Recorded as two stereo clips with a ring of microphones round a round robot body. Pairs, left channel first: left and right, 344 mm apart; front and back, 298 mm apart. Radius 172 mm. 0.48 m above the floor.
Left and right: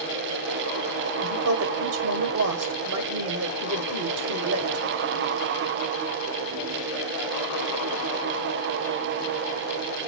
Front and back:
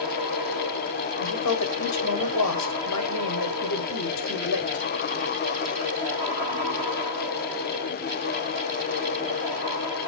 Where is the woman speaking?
40° right, 1.2 m.